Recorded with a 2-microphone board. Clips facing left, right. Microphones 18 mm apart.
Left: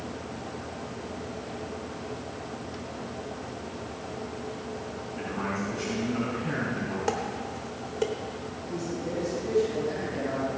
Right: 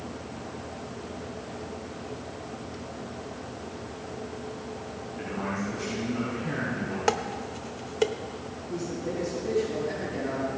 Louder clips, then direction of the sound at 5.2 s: Even; 40° left (ahead or behind).